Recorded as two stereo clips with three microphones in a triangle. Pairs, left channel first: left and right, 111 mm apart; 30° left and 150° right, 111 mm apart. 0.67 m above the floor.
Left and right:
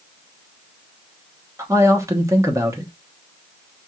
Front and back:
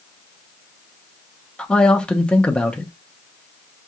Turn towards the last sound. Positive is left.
turn(degrees=-45)